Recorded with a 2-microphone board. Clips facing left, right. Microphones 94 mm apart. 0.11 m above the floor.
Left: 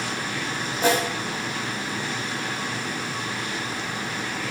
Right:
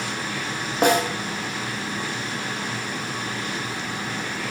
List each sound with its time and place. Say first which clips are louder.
0.8 s a snare drum: right 3 dB; 60° right (ahead or behind), 6.5 m